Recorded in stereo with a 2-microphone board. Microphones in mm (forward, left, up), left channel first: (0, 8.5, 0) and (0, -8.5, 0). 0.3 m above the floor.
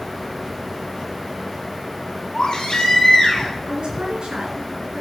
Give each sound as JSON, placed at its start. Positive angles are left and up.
{"t": 2.3, "sound": "a baby crying", "side_deg": 65, "distance_m": 2.5}
{"t": 3.7, "sound": "a woman speaking", "side_deg": -70, "distance_m": 3.0}